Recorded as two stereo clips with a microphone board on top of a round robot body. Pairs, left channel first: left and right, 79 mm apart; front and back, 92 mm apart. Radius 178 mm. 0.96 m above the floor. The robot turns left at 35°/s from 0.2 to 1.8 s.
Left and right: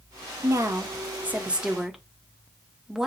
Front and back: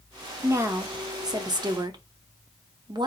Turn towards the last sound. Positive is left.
turn(degrees=-170)